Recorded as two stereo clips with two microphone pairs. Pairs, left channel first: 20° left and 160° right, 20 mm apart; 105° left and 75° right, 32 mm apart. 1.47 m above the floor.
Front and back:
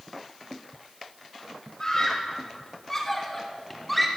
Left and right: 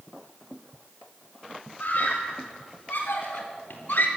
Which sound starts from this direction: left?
A scream, at 1.8 s.